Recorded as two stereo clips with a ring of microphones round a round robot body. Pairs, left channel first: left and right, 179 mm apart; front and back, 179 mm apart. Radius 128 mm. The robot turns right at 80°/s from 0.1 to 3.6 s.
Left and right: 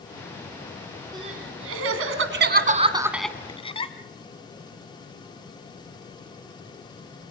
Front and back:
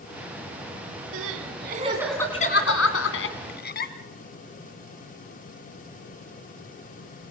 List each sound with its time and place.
1.1 s crying: 170° right, 2.5 m; by 3.9 s 30° left, 2.5 m